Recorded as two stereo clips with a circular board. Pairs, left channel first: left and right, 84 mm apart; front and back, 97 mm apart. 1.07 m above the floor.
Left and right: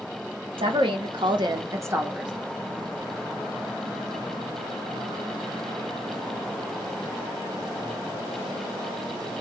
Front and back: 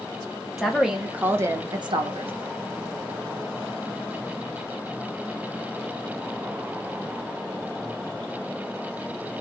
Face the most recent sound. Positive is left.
turn(degrees=-170)